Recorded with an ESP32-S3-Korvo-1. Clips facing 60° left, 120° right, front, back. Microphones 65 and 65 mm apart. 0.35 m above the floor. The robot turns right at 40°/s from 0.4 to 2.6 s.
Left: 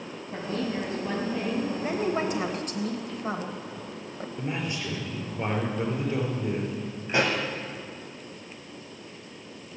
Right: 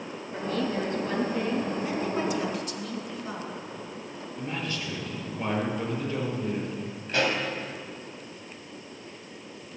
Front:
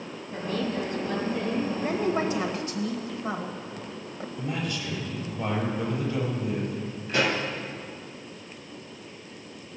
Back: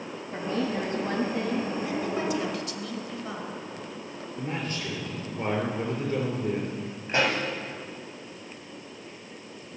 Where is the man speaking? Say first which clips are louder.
Left 1 dB, front 1 dB; 135° left, 5.5 m.